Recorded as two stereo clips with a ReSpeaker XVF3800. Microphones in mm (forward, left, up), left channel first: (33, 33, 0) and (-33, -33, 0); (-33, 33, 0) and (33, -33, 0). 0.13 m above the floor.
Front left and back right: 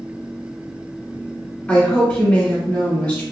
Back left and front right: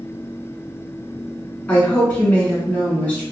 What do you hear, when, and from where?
1.7 s a woman speaking: 90° left, 1.4 m